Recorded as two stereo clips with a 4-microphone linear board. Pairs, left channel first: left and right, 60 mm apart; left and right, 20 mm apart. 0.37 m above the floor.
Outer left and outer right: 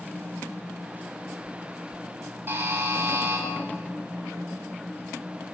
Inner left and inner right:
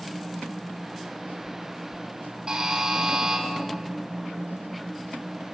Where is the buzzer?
45° right (ahead or behind), 2 m.